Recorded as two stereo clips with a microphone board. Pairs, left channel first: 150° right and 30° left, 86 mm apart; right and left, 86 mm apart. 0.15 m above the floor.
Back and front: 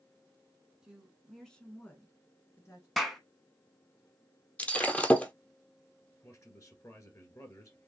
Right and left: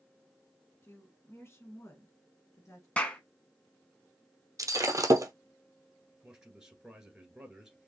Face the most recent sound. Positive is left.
turn(degrees=170)